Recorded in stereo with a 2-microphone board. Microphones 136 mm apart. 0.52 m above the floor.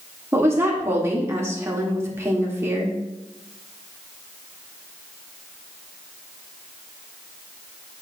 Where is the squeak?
No squeak in this recording.